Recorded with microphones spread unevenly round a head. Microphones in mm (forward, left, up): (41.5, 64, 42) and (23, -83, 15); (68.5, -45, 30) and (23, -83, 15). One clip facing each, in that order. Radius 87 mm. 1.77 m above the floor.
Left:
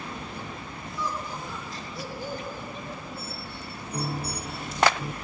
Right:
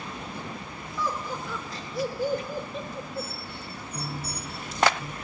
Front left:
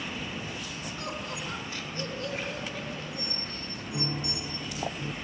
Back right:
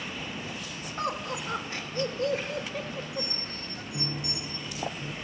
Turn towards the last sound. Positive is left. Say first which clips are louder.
# left 5 dB, front left 2 dB
turn(degrees=95)